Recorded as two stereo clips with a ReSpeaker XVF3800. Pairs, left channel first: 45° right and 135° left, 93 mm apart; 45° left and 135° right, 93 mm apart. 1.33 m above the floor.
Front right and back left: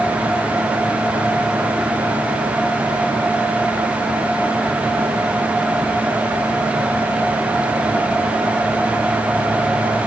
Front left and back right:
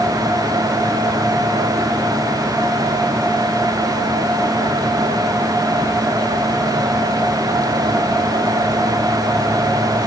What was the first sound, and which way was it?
Only background noise.